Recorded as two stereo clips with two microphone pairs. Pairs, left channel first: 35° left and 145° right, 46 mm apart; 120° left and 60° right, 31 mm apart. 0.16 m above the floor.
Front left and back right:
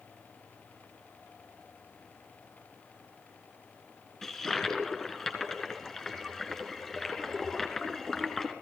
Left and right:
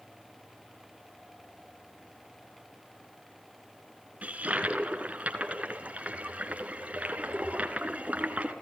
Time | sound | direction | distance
4.2 | a toilet flushing | 40° right | 2.5 m